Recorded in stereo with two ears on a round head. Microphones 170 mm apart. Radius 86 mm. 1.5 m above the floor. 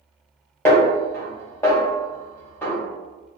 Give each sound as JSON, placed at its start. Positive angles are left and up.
{"t": 0.7, "sound": "a snare drum", "side_deg": 10, "distance_m": 1.0}